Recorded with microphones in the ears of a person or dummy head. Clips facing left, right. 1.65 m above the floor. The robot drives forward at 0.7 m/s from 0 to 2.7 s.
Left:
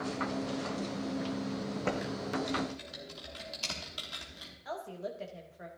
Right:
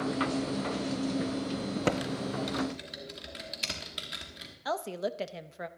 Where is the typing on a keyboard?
55° right (ahead or behind), 0.6 m; by 4.5 s 25° right (ahead or behind), 1.1 m.